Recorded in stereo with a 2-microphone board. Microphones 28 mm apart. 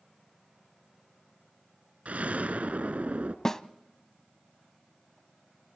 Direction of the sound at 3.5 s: 15° left (ahead or behind).